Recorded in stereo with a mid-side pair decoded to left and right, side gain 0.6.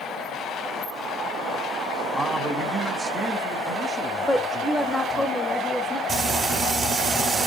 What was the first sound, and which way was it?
A man speaking, 15° right.